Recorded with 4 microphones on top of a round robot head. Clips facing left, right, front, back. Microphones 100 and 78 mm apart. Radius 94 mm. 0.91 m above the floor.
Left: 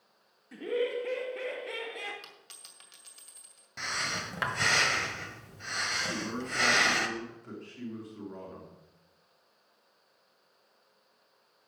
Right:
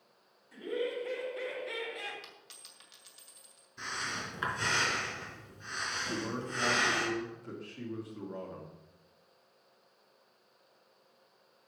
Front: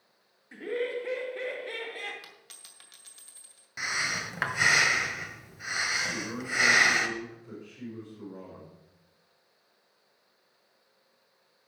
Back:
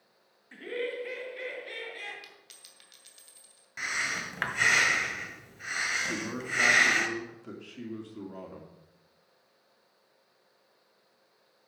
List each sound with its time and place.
0.5 s laughter: 80° left, 1.7 m; by 2.1 s 50° left, 2.5 m
2.2 s a dropped coin: 50° left, 2.5 m
3.8 s breathing: 80° left, 1.6 m
6.1 s a man speaking: straight behind, 3 m